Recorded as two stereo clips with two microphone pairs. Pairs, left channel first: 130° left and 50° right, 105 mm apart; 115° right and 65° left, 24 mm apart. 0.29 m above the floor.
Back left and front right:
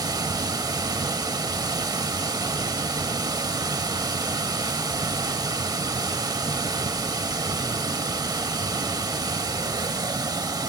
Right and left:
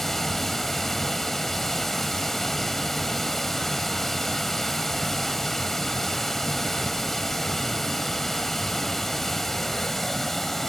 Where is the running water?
50° right, 0.8 m.